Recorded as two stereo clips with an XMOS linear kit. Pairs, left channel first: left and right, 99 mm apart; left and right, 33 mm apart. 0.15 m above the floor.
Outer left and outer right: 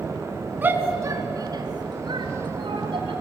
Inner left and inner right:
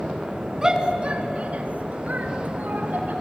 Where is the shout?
20° right (ahead or behind), 1.7 m; by 3.1 s 60° right (ahead or behind), 4 m.